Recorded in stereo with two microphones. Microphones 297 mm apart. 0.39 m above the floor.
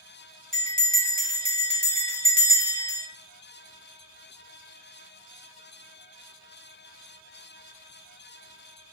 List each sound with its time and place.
0.5 s a bell: 25° right (ahead or behind), 1.3 m